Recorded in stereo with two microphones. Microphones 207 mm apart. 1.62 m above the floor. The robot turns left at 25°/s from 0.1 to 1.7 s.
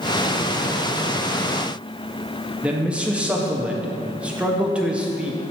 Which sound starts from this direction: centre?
A man speaking, at 2.6 s.